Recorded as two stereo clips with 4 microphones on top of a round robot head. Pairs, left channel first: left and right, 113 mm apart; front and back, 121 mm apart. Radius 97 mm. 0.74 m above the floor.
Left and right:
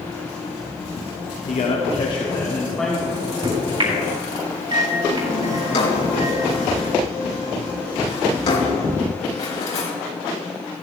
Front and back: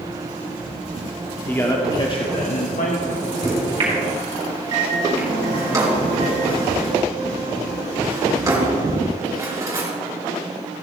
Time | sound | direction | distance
1.5 | a man speaking | 70° left | 1.6 m
3.1 | a microwave | 130° right | 4 m
5.6 | a drawer | 115° left | 4 m